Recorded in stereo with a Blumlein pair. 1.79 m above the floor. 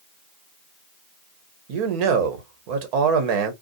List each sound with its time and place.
1.7 s a man speaking: 45° right, 1.0 m